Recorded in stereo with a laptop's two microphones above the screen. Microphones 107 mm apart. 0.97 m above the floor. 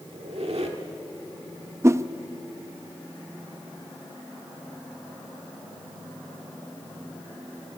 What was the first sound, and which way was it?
A squeak, 70° right (ahead or behind).